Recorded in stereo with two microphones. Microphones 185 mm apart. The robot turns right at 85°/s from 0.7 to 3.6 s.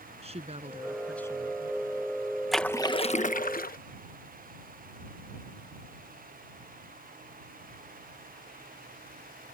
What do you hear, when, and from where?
0.2 s a woman speaking: 35° right; by 1.8 s 55° left
2.5 s a splash: straight ahead; by 3.8 s 90° left